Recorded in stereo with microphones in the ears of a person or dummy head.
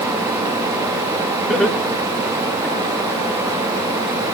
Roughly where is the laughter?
Centre.